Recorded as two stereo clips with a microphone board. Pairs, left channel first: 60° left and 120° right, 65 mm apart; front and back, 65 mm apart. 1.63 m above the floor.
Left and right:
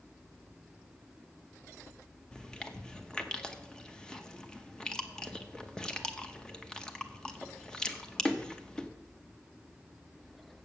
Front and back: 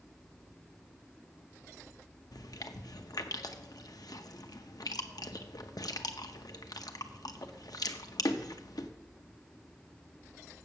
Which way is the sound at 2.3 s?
20° right.